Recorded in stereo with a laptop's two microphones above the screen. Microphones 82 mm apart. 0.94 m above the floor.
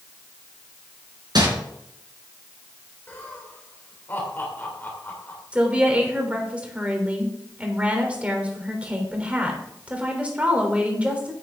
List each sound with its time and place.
1.4 s crumpling: 60° right (ahead or behind), 4.5 m
3.1 s laughter: 30° left (ahead or behind), 3 m
5.5 s a woman speaking: 15° right (ahead or behind), 3.5 m